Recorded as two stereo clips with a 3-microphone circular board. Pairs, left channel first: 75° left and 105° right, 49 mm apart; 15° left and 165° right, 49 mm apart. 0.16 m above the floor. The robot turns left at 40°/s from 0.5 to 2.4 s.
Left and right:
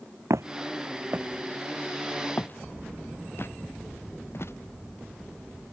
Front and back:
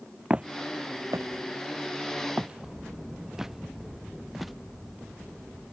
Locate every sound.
0.3 s footsteps: 95° right; by 4.5 s 105° left